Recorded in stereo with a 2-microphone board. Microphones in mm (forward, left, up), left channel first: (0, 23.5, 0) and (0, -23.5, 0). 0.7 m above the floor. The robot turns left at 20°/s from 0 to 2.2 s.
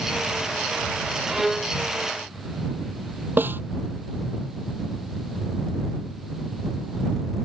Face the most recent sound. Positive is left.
turn(degrees=-45)  # may be behind; listen again after turning